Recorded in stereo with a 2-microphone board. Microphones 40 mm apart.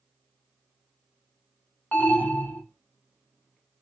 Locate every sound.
1.9 s an alarm: 40° left (ahead or behind), 1.0 m